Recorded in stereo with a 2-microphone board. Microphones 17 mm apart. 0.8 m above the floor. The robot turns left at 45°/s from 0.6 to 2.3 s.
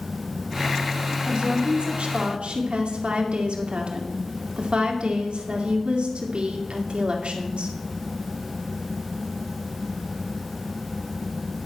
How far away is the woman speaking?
About 2 m.